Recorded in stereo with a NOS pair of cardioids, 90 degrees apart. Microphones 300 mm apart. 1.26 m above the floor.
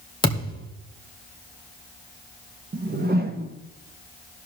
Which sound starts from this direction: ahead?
A thud, at 0.2 s.